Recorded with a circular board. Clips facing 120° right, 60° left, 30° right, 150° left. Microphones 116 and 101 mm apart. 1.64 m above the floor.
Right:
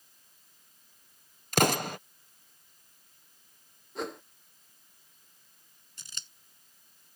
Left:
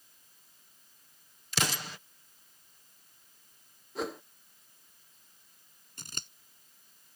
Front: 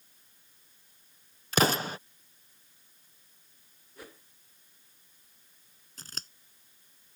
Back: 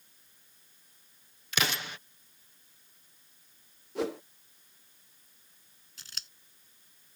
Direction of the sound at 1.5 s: 80° right.